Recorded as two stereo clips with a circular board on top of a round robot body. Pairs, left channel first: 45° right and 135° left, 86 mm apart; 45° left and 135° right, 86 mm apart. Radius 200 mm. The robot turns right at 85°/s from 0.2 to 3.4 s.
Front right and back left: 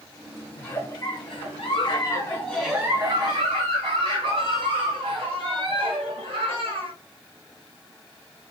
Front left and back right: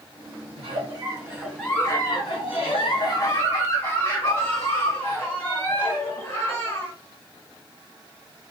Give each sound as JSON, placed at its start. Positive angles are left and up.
{"t": 0.6, "sound": "a giggle", "azimuth_deg": -130, "distance_m": 1.7}